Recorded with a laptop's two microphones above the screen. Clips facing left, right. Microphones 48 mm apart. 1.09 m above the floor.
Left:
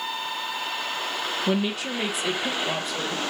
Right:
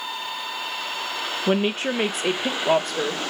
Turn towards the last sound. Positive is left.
turn(degrees=-65)  # may be behind; listen again after turning